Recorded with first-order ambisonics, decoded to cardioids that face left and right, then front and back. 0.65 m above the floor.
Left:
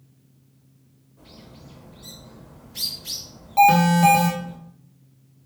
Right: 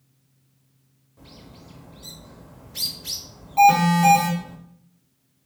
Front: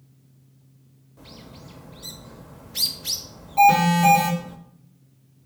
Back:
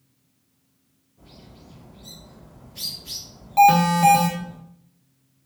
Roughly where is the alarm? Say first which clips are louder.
Even, back 1 dB; behind left.